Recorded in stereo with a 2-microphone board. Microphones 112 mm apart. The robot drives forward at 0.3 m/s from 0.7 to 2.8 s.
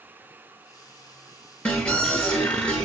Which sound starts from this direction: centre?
An alarm, at 1.6 s.